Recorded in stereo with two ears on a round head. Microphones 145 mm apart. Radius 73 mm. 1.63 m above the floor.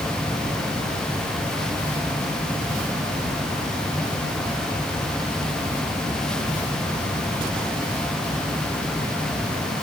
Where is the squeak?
No squeak in this recording.